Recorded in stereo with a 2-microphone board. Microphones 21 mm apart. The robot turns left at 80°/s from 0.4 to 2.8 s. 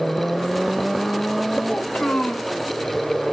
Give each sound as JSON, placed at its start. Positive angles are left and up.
{"t": 1.7, "sound": "a child speaking", "azimuth_deg": 120, "distance_m": 2.5}